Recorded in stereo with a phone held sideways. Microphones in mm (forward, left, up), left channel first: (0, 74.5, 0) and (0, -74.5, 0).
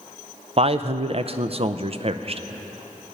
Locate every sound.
0.6 s a man speaking: 40° right (ahead or behind), 0.5 m